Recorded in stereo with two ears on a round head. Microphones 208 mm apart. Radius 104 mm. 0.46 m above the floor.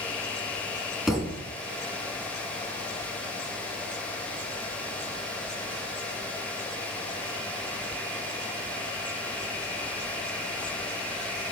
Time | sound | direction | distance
1.1 | a thud | centre (ahead or behind) | 3 m